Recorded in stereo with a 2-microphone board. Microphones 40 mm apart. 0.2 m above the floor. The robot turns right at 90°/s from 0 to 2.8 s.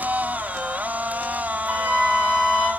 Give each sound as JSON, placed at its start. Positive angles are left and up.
{"t": 1.7, "sound": "a flute", "azimuth_deg": -90, "distance_m": 1.7}